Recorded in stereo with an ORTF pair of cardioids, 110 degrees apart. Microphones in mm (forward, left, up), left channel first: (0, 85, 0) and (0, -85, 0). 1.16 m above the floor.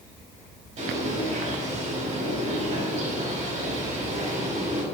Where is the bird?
40° right, 4 m.